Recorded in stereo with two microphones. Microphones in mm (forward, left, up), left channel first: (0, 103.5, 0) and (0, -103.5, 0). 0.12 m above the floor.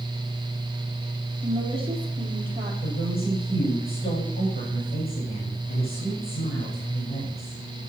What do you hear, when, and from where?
1.4 s a woman speaking: 25° right (ahead or behind), 3.5 m
2.8 s a woman speaking: 45° left (ahead or behind), 7.5 m